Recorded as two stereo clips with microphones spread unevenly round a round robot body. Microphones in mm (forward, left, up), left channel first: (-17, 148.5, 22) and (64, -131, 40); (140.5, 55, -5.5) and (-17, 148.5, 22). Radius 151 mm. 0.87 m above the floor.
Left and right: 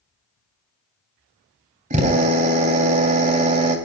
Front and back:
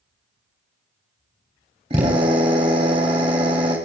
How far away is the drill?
About 3.5 m.